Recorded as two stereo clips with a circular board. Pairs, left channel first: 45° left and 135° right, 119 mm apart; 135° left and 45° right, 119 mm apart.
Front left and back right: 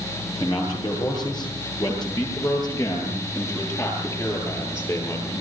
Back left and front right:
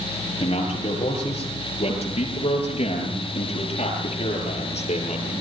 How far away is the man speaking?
About 9.5 m.